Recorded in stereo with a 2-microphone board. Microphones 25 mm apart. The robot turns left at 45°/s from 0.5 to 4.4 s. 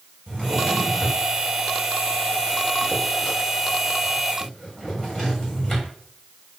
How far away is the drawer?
About 3.5 m.